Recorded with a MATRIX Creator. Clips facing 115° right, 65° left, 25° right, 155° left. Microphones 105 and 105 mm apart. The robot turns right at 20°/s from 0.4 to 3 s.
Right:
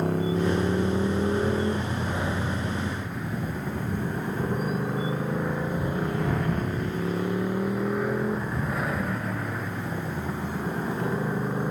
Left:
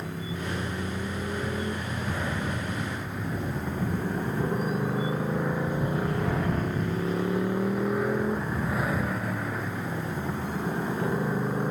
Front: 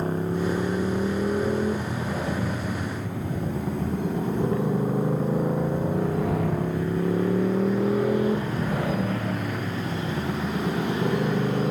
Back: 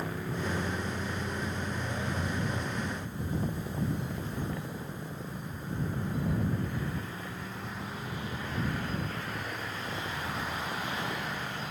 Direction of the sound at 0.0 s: 75° right.